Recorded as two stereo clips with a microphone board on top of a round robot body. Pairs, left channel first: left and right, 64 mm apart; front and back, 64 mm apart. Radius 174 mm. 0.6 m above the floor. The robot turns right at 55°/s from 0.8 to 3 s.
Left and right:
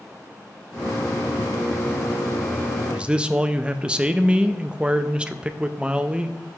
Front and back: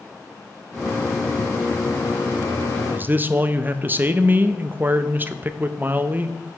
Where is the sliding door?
I don't hear a sliding door.